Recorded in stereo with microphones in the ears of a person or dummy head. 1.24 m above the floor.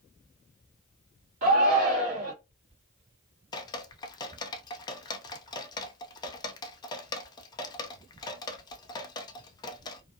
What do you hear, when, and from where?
1.4 s a shout: 50° right (ahead or behind), 1.5 m
3.5 s dripping: 25° left (ahead or behind), 0.5 m